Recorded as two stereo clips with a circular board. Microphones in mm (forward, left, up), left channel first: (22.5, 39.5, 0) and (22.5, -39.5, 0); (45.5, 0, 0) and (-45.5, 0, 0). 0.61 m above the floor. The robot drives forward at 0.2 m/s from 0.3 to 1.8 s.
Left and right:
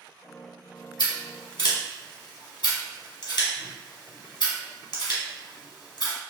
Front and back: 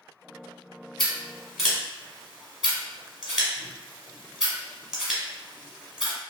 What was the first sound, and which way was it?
Scissors, 90° left.